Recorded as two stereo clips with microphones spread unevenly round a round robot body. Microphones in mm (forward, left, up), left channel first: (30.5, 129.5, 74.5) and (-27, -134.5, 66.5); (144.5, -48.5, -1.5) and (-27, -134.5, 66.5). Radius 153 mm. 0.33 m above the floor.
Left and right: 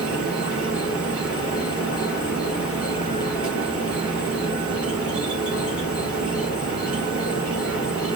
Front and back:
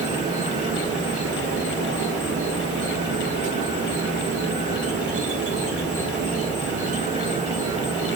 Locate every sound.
0.0 s an insect: straight behind, 2 m